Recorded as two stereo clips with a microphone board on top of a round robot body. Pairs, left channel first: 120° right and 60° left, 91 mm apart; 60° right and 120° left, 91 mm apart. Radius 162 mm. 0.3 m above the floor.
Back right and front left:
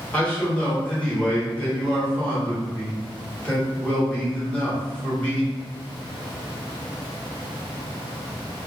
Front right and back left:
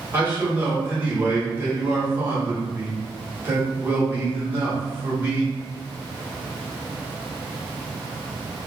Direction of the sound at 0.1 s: 175° left.